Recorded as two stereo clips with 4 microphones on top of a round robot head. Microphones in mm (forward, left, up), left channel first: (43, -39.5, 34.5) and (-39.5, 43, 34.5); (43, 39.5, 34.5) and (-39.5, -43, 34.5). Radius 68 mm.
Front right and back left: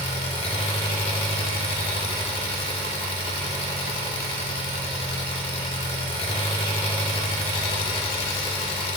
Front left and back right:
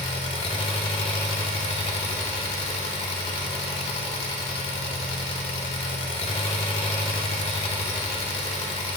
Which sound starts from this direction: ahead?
An engine running, at 0.0 s.